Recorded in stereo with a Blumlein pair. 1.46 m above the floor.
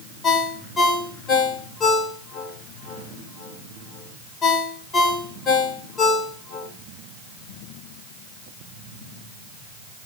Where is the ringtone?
25° left, 1.9 m.